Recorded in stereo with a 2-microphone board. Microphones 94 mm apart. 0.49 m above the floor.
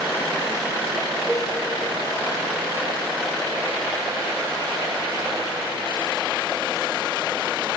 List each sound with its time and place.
1.3 s a cowbell: 5° right (ahead or behind), 6.5 m